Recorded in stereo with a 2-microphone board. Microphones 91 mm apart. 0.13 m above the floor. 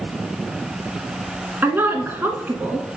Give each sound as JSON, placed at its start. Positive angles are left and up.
{"t": 1.6, "sound": "a woman speaking", "side_deg": -25, "distance_m": 1.1}